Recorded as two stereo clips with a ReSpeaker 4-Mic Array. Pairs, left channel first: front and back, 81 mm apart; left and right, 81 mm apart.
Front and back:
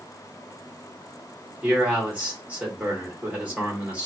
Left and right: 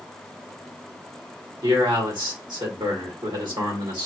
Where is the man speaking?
110° right, 2 m.